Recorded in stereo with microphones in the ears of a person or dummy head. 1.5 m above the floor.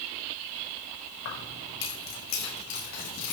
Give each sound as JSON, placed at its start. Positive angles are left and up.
{"t": 1.2, "sound": "keys jangling", "side_deg": 65, "distance_m": 2.0}